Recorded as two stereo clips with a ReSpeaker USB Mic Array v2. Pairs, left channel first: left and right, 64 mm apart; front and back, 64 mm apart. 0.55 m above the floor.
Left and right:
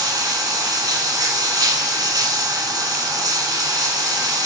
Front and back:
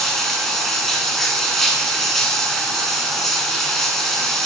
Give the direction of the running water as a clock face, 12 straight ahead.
3 o'clock.